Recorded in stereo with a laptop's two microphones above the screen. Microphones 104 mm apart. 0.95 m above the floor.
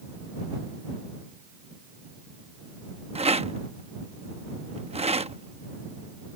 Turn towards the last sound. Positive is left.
turn(degrees=-80)